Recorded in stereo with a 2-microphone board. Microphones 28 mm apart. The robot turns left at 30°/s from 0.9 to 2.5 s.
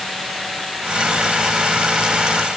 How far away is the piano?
No piano in this recording.